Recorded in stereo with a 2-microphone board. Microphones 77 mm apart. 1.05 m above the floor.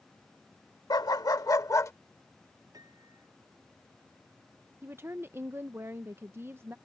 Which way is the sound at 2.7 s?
50° right (ahead or behind).